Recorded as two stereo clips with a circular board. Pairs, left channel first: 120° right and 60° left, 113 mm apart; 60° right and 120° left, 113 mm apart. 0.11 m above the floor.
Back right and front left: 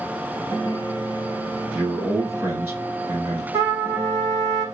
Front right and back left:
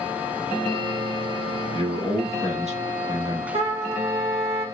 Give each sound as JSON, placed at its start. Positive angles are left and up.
{"t": 1.7, "sound": "a man speaking", "azimuth_deg": 125, "distance_m": 3.0}
{"t": 3.5, "sound": "a trumpet", "azimuth_deg": 120, "distance_m": 2.0}